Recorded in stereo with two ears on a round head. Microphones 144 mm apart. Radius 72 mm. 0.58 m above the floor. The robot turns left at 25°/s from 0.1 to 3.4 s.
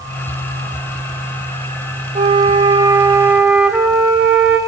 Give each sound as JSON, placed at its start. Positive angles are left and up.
{"t": 2.1, "sound": "a flute", "azimuth_deg": -140, "distance_m": 1.9}